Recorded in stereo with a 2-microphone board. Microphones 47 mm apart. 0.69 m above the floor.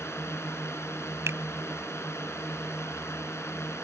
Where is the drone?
65° left (ahead or behind); by 3.9 s 70° left (ahead or behind).